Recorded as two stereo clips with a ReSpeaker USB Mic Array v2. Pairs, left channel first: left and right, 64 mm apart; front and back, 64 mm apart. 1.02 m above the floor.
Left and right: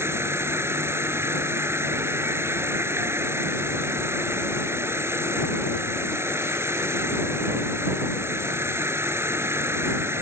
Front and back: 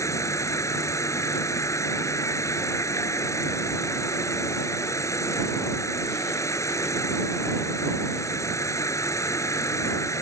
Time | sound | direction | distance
0.0 | an insect | 40° right | ?